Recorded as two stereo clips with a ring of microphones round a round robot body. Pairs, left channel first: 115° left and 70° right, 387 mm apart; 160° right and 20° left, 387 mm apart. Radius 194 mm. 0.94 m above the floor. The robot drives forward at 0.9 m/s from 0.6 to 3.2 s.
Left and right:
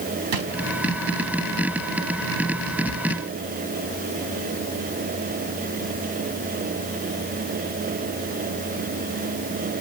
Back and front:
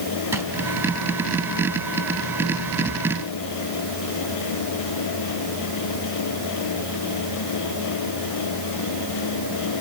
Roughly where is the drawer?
Ahead right.